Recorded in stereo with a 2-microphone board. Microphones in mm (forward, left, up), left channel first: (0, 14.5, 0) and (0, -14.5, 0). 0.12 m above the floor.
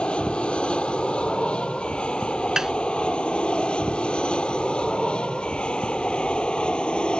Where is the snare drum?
25° right (ahead or behind).